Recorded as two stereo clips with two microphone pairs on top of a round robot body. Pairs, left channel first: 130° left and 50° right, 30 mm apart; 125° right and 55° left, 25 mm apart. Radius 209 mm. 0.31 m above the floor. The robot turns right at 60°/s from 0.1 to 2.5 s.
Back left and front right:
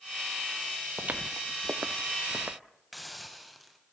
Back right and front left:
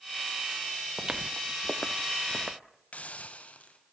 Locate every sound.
1.0 s footsteps: 5° right, 0.5 m; by 2.6 s 10° right, 1.5 m
2.9 s a hiss: 145° right, 2.5 m